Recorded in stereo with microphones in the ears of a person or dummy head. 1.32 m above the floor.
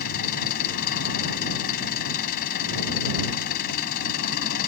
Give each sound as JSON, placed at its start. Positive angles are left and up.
{"t": 0.0, "sound": "an engine running", "side_deg": 55}